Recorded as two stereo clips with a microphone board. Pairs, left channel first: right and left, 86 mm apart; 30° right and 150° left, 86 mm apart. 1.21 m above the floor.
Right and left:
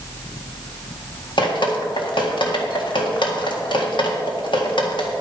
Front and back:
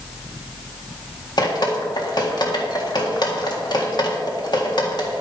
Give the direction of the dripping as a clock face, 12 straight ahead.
2 o'clock.